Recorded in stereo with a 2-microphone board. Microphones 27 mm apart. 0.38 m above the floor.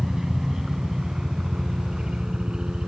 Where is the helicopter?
20° right (ahead or behind); by 2.9 s 35° right (ahead or behind).